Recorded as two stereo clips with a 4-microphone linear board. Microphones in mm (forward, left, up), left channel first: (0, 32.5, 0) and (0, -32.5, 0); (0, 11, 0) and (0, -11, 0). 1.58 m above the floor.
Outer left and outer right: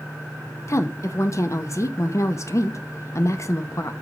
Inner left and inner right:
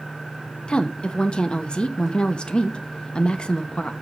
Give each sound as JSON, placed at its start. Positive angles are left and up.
{"t": 0.7, "sound": "a woman speaking", "side_deg": 50, "distance_m": 0.8}